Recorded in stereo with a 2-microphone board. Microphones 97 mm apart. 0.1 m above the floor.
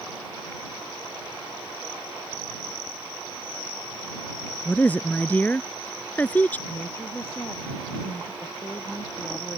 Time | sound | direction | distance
4.7 | a woman speaking | 15° left (ahead or behind) | ?
6.7 | a woman speaking | 25° left (ahead or behind) | ?